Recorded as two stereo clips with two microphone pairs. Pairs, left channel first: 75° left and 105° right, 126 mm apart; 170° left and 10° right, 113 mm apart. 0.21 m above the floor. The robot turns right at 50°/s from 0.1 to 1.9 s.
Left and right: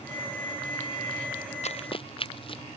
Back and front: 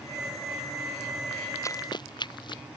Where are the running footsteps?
105° left; by 2.6 s 120° left.